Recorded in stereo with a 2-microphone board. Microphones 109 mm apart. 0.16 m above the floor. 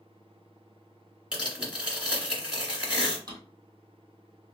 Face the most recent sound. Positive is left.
turn(degrees=-35)  # may be behind; listen again after turning